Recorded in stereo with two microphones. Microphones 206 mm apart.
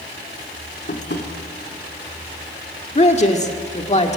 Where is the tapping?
60° left (ahead or behind), 2.5 m.